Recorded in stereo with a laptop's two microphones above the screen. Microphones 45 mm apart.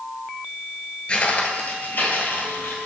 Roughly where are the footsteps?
Left.